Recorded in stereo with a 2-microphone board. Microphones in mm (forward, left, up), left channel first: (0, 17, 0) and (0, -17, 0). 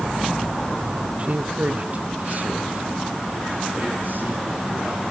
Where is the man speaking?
35° right (ahead or behind), 1.5 m; by 5.0 s 60° right (ahead or behind), 7 m.